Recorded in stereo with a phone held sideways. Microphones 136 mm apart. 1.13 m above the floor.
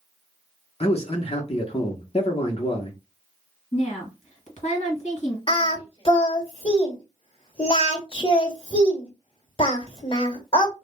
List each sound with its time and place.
0.8 s a man speaking: 50° left (ahead or behind), 0.9 m
3.7 s a woman speaking: 60° left (ahead or behind), 1.6 m
5.5 s singing: 40° left (ahead or behind), 1.2 m